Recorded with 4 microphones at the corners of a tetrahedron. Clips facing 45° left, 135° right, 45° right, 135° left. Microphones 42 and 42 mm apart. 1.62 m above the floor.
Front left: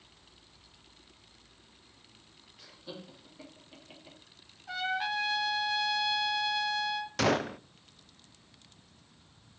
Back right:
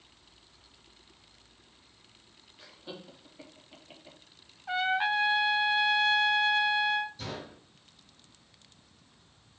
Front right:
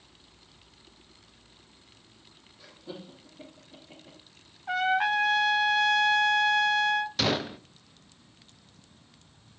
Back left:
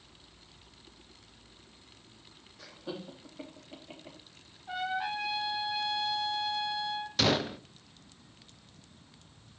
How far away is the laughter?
About 3 m.